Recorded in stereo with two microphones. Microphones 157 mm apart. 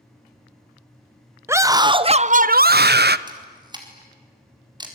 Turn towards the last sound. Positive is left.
turn(degrees=-25)  # may be behind; listen again after turning